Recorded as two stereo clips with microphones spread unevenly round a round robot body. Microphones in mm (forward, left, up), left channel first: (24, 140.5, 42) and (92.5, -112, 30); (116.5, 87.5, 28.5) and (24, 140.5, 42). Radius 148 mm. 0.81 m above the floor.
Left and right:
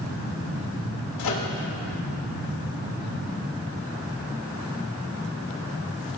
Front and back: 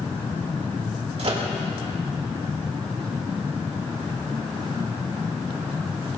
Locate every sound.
1.2 s a microwave: 125° left, 2.5 m